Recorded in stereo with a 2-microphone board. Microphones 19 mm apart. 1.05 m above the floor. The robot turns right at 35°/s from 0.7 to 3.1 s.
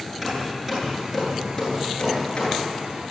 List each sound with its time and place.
0.2 s hammering: 15° right (ahead or behind), 9.5 m; by 2.7 s 55° left (ahead or behind), 9.5 m